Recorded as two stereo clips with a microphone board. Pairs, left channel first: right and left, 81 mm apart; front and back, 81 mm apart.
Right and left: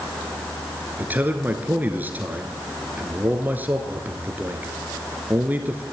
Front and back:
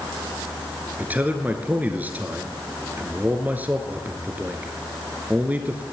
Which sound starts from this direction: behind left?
A man speaking, at 1.0 s.